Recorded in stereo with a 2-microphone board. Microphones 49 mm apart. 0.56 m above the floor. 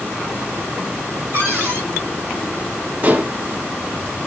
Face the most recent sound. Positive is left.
turn(degrees=-35)  # may be behind; listen again after turning